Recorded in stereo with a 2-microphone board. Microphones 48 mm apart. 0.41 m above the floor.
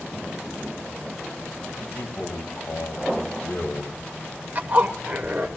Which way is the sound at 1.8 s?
45° left (ahead or behind).